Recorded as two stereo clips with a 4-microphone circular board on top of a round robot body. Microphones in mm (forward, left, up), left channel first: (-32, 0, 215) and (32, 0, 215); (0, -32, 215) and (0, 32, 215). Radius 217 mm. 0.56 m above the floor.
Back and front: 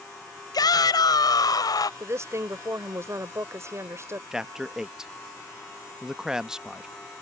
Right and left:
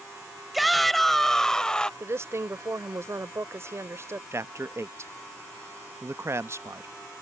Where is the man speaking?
75° left.